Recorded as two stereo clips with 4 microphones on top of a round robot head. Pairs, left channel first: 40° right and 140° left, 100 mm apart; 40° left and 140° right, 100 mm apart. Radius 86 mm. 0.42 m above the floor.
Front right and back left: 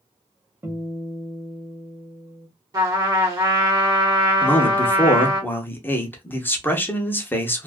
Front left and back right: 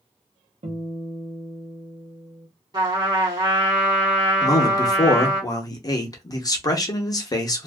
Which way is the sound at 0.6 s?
155° right.